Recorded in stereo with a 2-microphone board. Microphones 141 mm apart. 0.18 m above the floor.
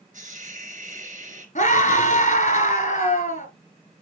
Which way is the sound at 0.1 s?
60° right (ahead or behind).